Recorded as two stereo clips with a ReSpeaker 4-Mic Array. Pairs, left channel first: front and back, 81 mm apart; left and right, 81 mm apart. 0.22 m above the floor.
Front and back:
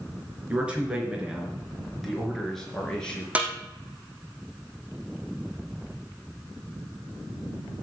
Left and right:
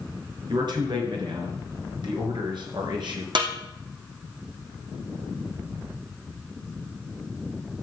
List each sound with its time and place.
0.5 s a man speaking: 105° right, 4 m; by 3.2 s 80° right, 4.5 m
3.4 s a snare drum: 105° right, 2.5 m